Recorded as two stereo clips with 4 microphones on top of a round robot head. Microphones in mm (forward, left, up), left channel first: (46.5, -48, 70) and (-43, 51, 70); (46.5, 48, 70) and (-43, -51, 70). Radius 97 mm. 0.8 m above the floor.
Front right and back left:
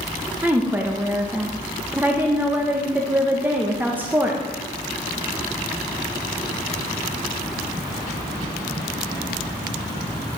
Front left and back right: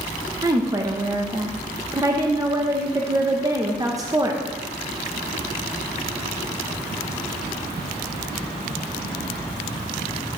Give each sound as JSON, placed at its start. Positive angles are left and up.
{"t": 0.4, "sound": "a woman speaking", "azimuth_deg": -165, "distance_m": 0.9}